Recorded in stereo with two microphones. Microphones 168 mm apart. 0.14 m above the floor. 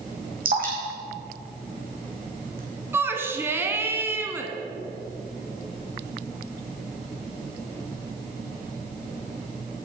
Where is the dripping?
60° right (ahead or behind), 2.5 m.